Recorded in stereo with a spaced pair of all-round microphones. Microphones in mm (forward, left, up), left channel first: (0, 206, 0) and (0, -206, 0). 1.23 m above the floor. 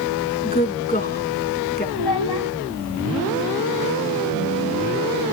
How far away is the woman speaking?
About 3 m.